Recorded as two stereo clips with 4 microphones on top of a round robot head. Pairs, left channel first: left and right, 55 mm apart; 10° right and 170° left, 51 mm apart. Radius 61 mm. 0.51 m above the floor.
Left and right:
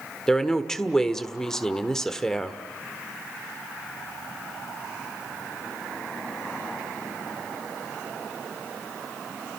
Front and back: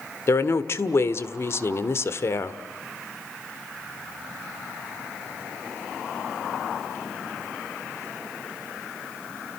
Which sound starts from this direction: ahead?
A woman speaking, at 0.3 s.